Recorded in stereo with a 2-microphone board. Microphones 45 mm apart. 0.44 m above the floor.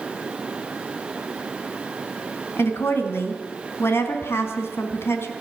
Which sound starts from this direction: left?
A woman speaking, at 2.6 s.